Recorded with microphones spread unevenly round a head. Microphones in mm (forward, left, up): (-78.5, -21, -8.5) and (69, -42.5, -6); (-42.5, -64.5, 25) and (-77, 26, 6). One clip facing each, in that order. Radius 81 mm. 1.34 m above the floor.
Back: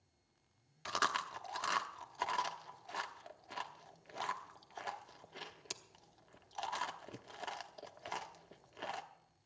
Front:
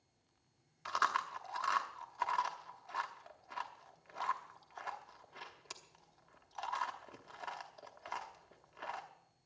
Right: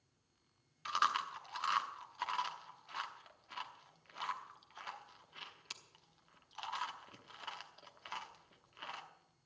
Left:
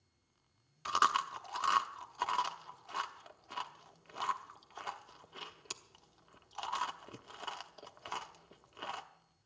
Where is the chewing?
145° left, 0.9 m.